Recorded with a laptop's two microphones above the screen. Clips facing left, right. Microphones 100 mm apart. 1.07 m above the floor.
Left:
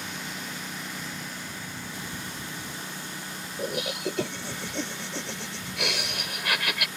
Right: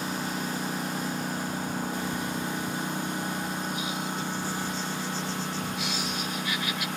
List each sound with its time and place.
0.0 s a lawn mower: 40° right (ahead or behind); by 7.0 s 55° right (ahead or behind)
3.6 s laughter: 75° left (ahead or behind)